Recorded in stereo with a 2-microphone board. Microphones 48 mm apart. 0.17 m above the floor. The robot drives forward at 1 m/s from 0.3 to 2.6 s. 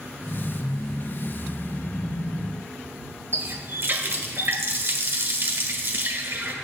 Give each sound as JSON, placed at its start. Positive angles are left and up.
{"t": 3.3, "sound": "a running tap", "side_deg": -45, "distance_m": 1.5}